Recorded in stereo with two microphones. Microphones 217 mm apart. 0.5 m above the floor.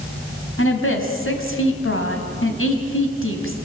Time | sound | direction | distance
0.6 | a woman speaking | 70° left (ahead or behind) | 3.5 m